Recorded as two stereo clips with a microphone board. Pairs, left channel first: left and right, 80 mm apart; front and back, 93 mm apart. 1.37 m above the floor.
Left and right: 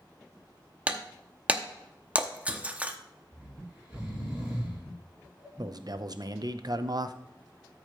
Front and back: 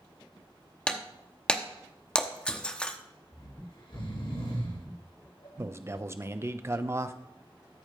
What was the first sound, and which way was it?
Breaking glass, 55° right.